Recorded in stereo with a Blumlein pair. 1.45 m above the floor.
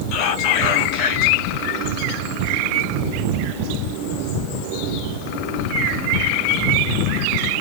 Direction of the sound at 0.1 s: 45° left.